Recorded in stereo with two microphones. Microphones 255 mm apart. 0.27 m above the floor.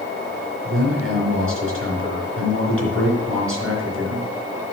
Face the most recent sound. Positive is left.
turn(degrees=-55)  # may be behind; listen again after turning